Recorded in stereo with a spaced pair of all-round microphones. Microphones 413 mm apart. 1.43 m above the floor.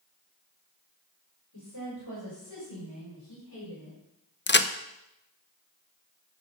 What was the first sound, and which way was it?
A woman speaking, 60° left (ahead or behind).